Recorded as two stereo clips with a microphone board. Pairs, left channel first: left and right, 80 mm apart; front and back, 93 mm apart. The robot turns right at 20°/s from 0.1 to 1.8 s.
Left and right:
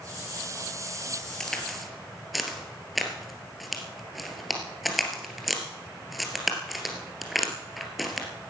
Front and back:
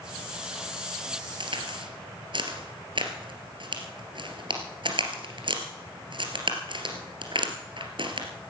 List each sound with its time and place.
1.4 s a crack: 175° left, 2.5 m; by 8.3 s straight behind, 2.5 m